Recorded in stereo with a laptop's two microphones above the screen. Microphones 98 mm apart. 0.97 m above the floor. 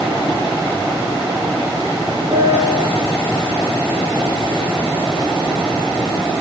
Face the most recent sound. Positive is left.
turn(degrees=-40)  # may be behind; listen again after turning